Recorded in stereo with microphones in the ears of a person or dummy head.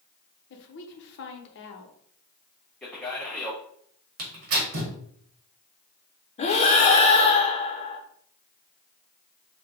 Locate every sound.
0.5 s a woman speaking: 60° left (ahead or behind), 0.8 m
2.8 s a man speaking: 5° left (ahead or behind), 0.7 m
4.2 s tearing paper: 55° right (ahead or behind), 1.3 m
6.4 s breathing: 35° left (ahead or behind), 0.7 m